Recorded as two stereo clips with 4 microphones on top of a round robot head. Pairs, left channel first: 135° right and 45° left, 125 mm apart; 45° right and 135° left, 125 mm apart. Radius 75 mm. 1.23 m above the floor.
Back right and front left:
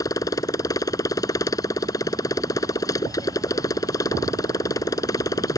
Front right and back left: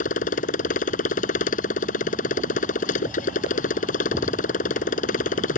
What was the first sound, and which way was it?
A motorcycle, 70° right.